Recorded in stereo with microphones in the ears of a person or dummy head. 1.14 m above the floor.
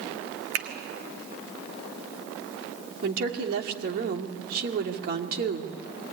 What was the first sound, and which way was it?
A finger snap, 50° right (ahead or behind).